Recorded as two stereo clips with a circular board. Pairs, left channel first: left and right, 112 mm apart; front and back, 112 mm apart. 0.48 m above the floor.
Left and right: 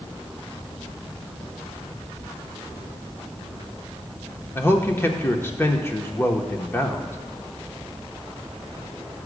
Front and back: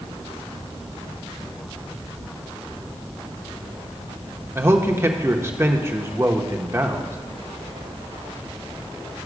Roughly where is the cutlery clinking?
I don't hear cutlery clinking.